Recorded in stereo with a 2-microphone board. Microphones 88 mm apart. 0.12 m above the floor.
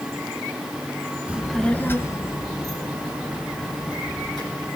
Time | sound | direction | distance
1.3 | a child speaking | 15° right (ahead or behind) | 0.7 m